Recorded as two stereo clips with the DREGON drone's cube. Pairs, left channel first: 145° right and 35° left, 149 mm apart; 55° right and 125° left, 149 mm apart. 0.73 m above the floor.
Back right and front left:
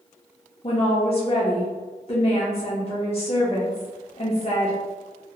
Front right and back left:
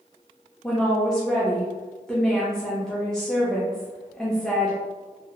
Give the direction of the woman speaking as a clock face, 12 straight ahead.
5 o'clock.